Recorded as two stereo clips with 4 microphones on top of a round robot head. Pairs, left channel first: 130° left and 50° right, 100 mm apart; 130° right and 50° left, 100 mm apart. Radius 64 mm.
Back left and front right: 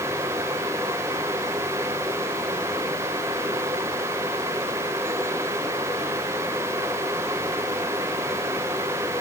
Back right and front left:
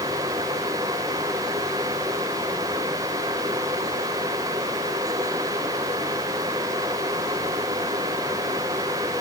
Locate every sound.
Only background noise.